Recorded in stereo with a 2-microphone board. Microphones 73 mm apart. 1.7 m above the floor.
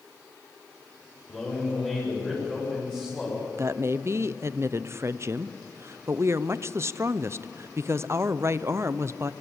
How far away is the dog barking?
I don't hear a dog barking.